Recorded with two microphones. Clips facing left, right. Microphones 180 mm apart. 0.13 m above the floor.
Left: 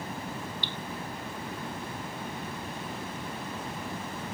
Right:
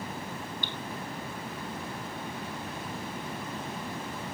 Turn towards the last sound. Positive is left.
turn(degrees=-50)  # may be behind; listen again after turning